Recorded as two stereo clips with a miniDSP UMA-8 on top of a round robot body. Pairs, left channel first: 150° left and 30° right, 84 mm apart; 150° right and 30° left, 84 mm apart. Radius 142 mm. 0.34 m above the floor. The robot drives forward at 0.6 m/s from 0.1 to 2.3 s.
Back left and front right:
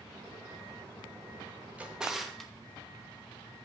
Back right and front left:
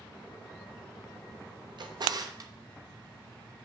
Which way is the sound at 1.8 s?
45° left.